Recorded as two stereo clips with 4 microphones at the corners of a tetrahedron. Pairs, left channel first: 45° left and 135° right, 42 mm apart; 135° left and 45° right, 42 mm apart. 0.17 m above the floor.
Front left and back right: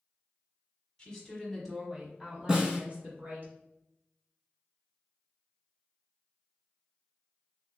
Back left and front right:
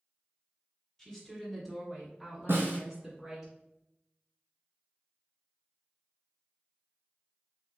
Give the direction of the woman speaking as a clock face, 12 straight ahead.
9 o'clock.